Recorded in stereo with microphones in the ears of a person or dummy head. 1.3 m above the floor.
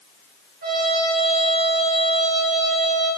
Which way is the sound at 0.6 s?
55° right (ahead or behind).